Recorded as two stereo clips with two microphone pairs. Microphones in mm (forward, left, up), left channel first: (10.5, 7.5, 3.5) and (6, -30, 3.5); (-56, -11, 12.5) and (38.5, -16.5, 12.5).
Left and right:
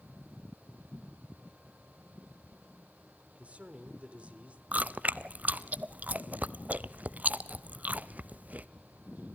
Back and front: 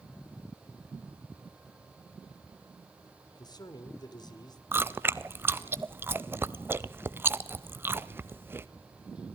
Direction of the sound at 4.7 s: 65° right.